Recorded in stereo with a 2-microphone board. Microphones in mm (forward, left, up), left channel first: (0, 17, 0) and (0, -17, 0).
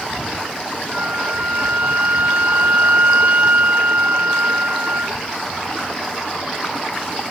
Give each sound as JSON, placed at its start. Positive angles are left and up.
{"t": 0.9, "sound": "a flute", "side_deg": -45}